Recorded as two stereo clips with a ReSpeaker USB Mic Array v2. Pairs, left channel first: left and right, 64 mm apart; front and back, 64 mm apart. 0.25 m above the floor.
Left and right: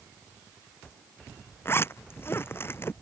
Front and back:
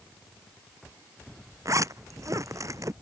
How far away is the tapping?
I don't hear tapping.